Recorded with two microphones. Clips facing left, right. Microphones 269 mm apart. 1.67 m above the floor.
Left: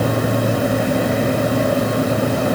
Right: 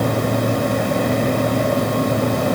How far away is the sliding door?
I don't hear a sliding door.